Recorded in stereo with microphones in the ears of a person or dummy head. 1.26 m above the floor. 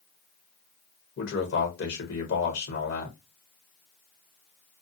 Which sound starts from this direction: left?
A man speaking, at 1.2 s.